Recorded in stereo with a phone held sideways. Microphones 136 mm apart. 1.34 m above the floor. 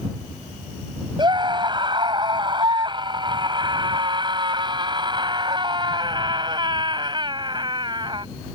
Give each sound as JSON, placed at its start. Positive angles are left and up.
{"t": 1.2, "sound": "a scream", "side_deg": -35}